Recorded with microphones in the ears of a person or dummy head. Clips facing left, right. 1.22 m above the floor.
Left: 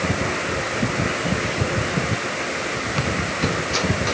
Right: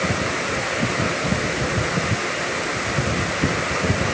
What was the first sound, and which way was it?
Only background noise.